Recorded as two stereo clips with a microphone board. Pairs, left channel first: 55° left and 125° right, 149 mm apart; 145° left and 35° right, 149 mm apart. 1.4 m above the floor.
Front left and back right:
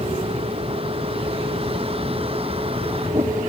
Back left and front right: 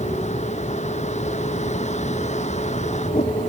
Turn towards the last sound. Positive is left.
turn(degrees=-175)